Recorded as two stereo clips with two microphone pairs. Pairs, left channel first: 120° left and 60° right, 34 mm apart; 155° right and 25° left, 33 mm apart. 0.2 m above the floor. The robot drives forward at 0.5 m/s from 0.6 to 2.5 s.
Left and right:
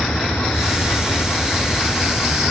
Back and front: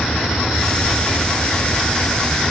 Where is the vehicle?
160° left.